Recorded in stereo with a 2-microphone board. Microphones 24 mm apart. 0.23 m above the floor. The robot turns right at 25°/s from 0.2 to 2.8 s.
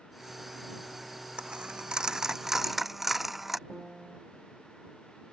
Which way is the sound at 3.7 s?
20° right (ahead or behind).